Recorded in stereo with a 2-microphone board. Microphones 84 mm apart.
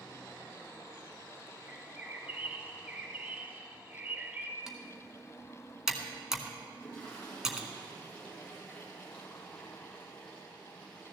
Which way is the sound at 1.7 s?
20° right (ahead or behind).